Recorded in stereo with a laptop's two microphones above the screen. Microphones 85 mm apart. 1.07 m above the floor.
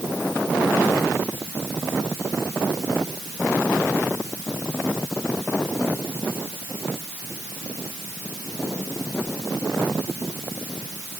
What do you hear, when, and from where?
Only background noise.